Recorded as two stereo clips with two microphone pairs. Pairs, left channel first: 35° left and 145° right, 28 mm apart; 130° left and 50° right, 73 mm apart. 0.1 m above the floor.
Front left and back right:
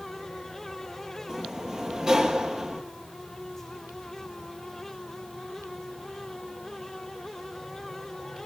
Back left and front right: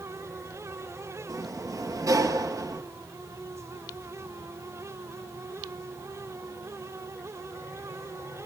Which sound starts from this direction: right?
A sliding door, at 1.3 s.